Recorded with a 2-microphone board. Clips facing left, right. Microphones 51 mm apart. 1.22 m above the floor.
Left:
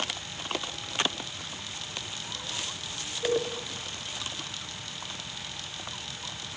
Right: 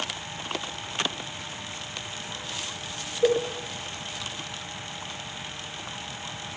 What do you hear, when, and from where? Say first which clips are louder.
3.2 s a cowbell: right 5 dB; 85° right, 4.5 m